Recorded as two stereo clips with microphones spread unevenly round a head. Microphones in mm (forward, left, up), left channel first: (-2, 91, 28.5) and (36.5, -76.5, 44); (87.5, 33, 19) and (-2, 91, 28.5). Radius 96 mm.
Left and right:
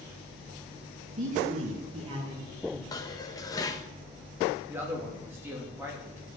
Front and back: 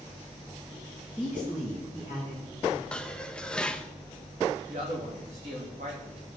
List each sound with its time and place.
1.2 s a man speaking: 125° right, 3 m; by 2.8 s 150° right, 3 m
2.9 s dishes clattering: 50° left, 0.9 m
4.7 s a man speaking: 155° right, 3 m